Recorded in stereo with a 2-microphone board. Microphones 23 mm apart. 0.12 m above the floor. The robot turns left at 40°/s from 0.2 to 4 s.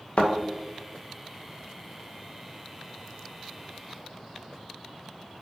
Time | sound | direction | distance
0.2 | a thud | 60° left (ahead or behind) | 2 m